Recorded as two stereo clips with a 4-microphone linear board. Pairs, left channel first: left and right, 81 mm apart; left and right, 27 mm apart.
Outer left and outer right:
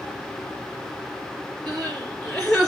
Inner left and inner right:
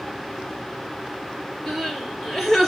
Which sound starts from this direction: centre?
Crying, at 1.7 s.